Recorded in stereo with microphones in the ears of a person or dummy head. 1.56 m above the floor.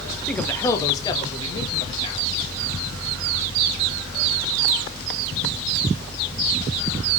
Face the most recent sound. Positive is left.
turn(degrees=30)  # may be behind; listen again after turning